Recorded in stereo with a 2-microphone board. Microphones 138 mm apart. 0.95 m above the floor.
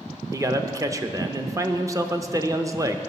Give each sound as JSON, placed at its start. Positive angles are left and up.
{"t": 0.3, "sound": "a man speaking", "side_deg": -25, "distance_m": 0.6}